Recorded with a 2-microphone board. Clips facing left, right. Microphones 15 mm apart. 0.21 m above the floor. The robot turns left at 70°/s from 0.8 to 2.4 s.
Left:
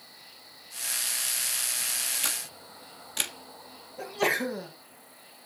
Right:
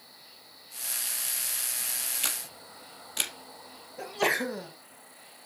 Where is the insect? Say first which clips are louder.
Left 2 dB; 75° left, 2.5 m; by 5.5 s 40° right, 2.5 m.